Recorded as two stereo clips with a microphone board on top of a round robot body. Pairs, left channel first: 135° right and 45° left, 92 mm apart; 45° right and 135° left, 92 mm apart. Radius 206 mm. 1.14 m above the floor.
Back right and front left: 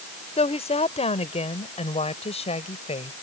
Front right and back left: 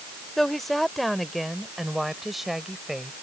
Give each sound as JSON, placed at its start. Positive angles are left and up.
{"t": 0.4, "sound": "a woman speaking", "azimuth_deg": -135}